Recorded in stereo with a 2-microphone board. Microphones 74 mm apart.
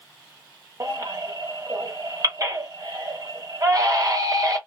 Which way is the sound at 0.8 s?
45° right (ahead or behind).